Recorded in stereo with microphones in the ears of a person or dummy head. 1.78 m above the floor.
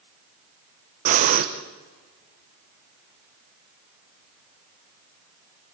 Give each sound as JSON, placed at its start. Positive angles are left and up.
{"t": 1.1, "sound": "breathing", "side_deg": -35, "distance_m": 1.3}